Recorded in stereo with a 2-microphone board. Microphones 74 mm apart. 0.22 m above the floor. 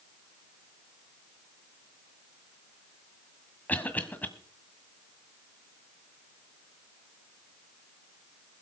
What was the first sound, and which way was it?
A cough, 20° left (ahead or behind).